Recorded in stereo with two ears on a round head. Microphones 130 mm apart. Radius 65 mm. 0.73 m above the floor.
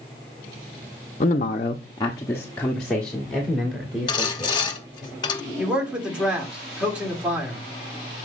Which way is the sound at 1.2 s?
45° left (ahead or behind).